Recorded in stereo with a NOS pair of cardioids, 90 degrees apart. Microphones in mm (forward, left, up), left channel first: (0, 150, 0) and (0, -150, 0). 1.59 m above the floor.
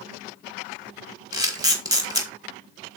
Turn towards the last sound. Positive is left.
turn(degrees=-10)